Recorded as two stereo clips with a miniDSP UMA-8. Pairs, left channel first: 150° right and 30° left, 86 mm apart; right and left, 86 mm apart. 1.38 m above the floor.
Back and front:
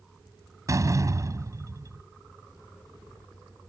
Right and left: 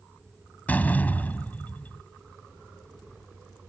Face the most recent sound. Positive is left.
turn(degrees=-20)